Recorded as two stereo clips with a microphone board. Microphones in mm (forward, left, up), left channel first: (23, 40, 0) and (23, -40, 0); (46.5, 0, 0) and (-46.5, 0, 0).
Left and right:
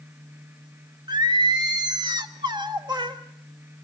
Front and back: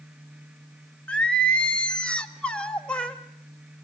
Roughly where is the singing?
Right.